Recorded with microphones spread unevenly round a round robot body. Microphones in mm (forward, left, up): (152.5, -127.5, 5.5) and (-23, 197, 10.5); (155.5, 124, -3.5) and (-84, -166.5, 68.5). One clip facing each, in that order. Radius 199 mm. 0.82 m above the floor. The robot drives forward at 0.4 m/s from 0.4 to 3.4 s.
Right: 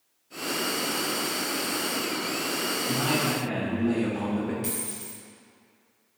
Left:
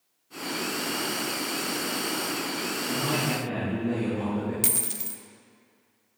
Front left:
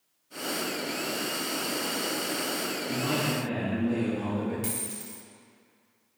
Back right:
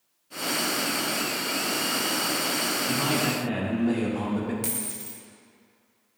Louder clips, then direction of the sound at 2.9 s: Right 2 dB, back right 2 dB; 125° right.